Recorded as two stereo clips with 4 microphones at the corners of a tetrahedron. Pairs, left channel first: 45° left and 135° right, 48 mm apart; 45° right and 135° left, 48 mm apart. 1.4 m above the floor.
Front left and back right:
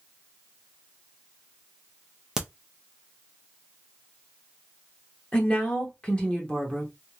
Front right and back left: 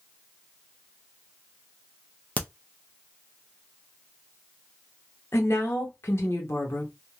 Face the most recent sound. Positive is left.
turn(degrees=-20)